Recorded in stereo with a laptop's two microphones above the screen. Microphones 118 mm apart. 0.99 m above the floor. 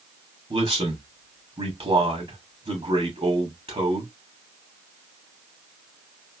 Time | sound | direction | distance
0.5 | a man speaking | 55° right (ahead or behind) | 2.5 m